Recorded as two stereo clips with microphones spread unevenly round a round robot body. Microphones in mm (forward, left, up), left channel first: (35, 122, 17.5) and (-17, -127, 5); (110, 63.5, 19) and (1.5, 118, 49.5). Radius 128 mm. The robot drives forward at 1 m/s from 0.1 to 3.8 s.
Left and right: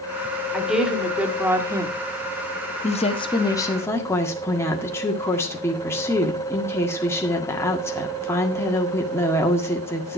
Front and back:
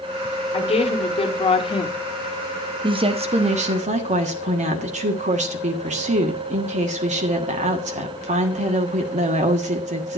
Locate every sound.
0.5 s a woman speaking: 15° right, 2.5 m; by 1.9 s 30° right, 1.4 m
2.8 s a woman speaking: 120° left, 1.1 m; by 10.2 s 160° left, 1.6 m